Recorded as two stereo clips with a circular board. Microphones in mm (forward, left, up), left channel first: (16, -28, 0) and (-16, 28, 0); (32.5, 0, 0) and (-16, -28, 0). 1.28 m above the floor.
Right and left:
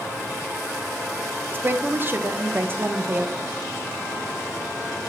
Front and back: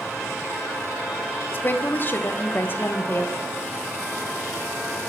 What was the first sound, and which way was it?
A woman speaking, 70° left.